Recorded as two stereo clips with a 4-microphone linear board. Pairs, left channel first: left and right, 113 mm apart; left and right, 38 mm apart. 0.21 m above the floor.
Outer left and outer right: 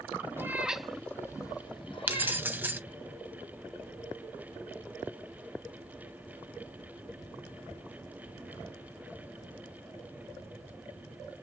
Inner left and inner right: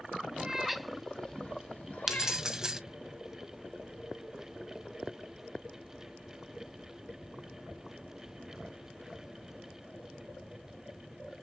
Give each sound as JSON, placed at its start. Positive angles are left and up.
{"t": 0.4, "sound": "a cat meowing", "side_deg": -20, "distance_m": 0.7}
{"t": 2.1, "sound": "keys jangling", "side_deg": -15, "distance_m": 0.7}